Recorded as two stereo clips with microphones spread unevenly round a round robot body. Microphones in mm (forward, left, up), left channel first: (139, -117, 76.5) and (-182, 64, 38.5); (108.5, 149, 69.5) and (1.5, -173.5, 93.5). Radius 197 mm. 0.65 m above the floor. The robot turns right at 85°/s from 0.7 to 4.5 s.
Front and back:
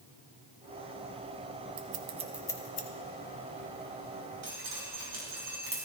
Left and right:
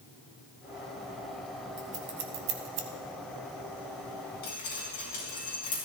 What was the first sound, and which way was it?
Scissors, 170° right.